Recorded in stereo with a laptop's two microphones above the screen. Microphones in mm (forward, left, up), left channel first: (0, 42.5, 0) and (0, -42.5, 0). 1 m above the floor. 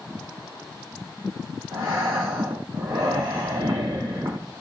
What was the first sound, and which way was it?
Breathing, 65° right (ahead or behind).